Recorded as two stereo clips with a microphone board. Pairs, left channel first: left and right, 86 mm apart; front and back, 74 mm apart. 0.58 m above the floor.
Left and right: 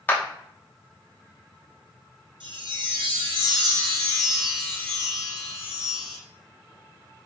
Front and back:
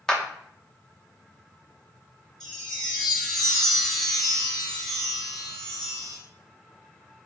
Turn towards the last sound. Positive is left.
turn(degrees=-85)